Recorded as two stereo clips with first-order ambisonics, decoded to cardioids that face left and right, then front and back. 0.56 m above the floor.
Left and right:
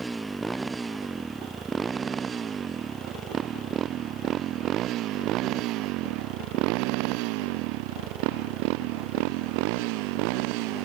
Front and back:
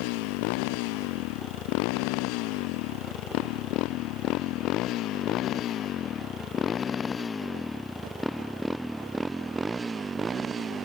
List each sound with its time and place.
0.0 s a motorcycle: 5° right; by 10.9 s 110° right